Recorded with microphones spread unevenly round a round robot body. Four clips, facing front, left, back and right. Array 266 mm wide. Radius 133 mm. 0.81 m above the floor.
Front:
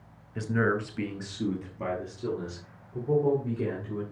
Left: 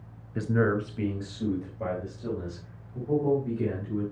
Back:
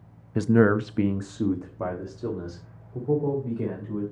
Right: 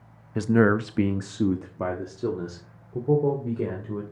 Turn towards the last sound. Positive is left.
turn(degrees=-90)